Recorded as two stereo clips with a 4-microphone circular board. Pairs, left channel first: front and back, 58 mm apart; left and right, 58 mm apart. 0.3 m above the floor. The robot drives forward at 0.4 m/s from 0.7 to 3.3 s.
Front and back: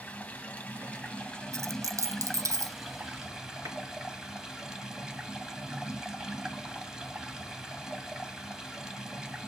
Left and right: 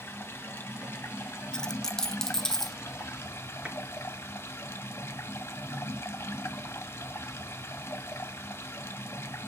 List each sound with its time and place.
0.0 s running water: 55° left, 1.6 m; by 9.5 s 105° left, 1.5 m
1.5 s a dropped coin: 165° left, 0.5 m; by 2.8 s 175° left, 1.0 m
3.6 s a clap: 160° right, 4.5 m